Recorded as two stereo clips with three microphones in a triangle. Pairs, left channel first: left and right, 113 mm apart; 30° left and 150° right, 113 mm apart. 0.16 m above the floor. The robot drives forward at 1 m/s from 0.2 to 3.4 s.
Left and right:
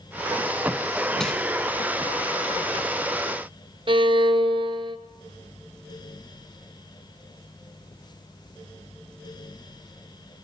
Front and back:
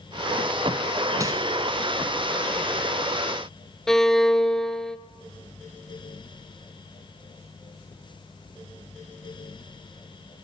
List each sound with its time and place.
1.2 s crumpling: 170° left, 1.5 m
3.9 s a violin: 55° right, 0.6 m